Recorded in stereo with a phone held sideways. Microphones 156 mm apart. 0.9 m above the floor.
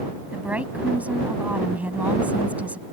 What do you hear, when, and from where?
0.3 s a woman speaking: 10° right (ahead or behind)